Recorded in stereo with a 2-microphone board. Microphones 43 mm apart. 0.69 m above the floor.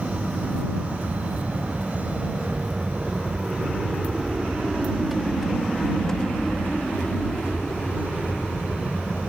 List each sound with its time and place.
0.0 s an aircraft: 20° right (ahead or behind); by 9.3 s 25° left (ahead or behind)